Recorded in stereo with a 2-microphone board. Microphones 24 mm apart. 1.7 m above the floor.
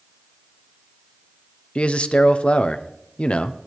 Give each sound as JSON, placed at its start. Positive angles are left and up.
{"t": 1.8, "sound": "a man speaking", "side_deg": 60, "distance_m": 0.7}